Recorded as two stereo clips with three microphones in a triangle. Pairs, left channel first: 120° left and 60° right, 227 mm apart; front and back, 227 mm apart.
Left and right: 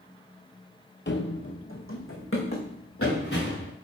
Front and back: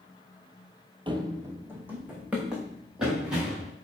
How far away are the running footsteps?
About 0.6 m.